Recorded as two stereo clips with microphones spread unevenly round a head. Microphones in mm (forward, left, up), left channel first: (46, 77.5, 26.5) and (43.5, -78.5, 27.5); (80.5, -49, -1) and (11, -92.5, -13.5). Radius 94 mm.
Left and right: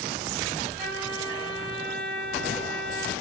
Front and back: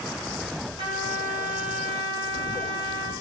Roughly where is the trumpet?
Behind.